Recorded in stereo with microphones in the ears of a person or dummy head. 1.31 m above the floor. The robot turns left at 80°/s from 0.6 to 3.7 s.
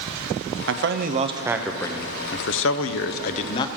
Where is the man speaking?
100° right, 0.6 m; by 3.7 s 20° left, 0.6 m.